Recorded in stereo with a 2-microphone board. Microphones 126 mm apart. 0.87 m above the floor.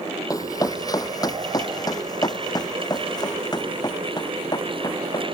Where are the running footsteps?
30° left (ahead or behind).